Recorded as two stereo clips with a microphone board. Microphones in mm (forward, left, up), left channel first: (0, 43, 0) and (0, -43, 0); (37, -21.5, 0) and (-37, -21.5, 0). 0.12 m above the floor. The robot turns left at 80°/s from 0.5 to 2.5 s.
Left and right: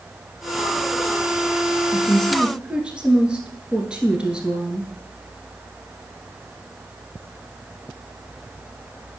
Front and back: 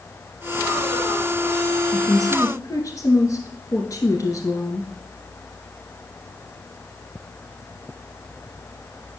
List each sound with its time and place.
1.9 s a woman speaking: 30° left, 1.6 m; by 4.9 s 15° right, 1.6 m